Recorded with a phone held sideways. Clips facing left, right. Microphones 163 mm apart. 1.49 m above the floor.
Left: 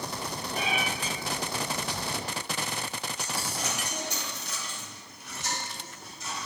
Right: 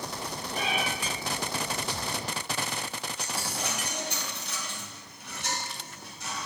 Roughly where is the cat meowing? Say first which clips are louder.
Even; centre.